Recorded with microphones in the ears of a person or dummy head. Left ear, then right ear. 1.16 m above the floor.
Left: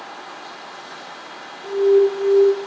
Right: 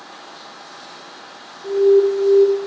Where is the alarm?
35° left (ahead or behind), 1.2 m.